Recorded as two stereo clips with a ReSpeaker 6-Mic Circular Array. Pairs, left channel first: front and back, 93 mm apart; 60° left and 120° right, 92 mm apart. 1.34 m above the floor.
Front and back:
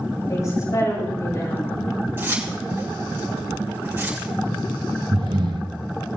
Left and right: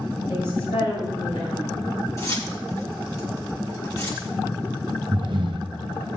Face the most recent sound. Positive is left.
turn(degrees=-150)